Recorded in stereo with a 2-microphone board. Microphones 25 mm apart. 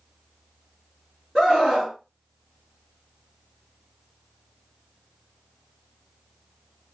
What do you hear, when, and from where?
1.4 s a scream: 25° right (ahead or behind), 1.8 m